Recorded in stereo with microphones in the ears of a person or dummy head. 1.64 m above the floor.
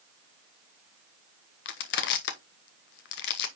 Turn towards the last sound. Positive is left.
turn(degrees=55)  # may be behind; listen again after turning